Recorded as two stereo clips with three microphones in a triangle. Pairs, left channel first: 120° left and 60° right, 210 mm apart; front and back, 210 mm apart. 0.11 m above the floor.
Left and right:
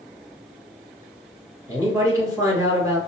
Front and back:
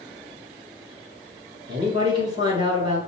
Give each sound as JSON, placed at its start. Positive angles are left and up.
{"t": 1.7, "sound": "a man speaking", "azimuth_deg": -125, "distance_m": 1.4}